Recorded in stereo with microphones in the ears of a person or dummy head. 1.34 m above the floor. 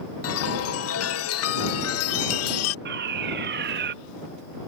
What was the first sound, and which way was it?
A chime, 70° left (ahead or behind).